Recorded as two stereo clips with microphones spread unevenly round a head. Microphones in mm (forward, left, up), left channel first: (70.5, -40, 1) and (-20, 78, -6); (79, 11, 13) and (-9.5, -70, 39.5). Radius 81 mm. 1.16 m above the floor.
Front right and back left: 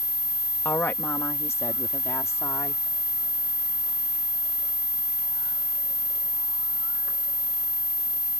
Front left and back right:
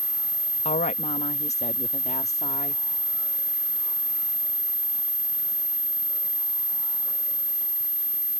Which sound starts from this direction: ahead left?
A woman speaking, at 0.7 s.